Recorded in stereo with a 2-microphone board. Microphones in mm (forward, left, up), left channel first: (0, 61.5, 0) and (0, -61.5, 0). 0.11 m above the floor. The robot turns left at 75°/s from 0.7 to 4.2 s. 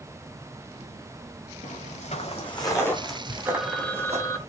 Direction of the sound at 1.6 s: 80° left.